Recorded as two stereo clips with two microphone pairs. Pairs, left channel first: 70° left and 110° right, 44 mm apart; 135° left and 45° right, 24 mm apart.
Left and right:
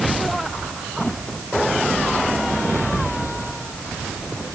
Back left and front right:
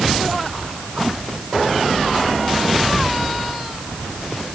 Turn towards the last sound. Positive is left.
No sound to turn to.